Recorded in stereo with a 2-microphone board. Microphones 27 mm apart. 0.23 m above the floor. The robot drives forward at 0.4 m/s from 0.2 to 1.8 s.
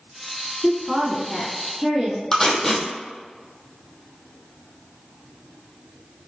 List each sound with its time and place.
0.6 s a woman speaking: centre (ahead or behind), 3 m
2.3 s tape being pulled: 20° left (ahead or behind), 1.9 m